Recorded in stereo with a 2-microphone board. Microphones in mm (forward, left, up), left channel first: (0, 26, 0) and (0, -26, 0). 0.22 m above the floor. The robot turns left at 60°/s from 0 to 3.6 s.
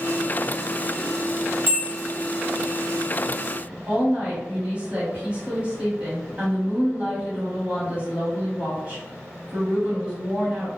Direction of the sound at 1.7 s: 45° right (ahead or behind).